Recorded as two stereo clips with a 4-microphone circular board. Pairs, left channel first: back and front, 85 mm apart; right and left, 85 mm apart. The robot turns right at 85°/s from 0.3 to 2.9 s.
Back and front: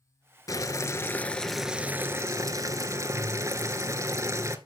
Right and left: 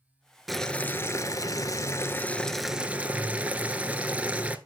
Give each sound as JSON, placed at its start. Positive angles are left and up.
{"t": 0.5, "sound": "boiling", "azimuth_deg": 180, "distance_m": 0.8}